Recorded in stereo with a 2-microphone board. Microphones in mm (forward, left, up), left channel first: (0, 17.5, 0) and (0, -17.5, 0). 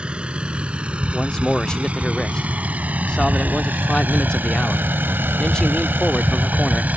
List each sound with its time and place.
0.0 s a vehicle: 30° right (ahead or behind); by 7.0 s 50° right (ahead or behind)
1.1 s a man speaking: 25° left (ahead or behind)